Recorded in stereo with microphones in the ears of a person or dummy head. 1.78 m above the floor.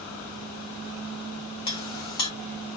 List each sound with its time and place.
1.7 s a clink: 20° left (ahead or behind), 0.8 m